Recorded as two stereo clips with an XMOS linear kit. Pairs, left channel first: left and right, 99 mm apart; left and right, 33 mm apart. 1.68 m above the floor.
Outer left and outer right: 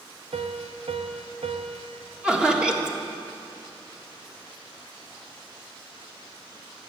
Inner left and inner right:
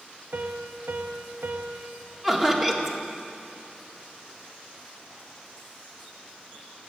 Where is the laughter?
10° right (ahead or behind), 1.8 m.